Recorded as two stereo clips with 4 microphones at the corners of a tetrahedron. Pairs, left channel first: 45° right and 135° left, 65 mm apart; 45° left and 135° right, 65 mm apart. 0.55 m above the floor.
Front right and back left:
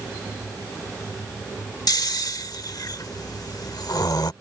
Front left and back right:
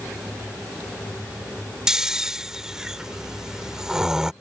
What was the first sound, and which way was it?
Snoring, 55° right.